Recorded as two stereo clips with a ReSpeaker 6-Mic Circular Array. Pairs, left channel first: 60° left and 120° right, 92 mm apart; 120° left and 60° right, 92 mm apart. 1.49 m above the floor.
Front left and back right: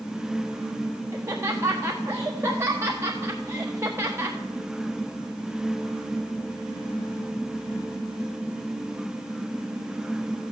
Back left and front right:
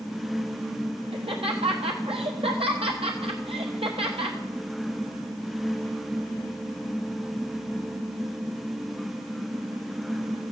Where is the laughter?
60° right, 1.3 m.